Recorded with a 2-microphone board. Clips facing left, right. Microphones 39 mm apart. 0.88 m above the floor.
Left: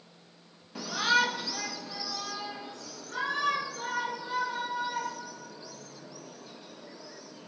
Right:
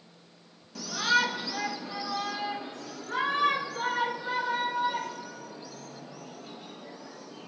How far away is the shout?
About 1.1 m.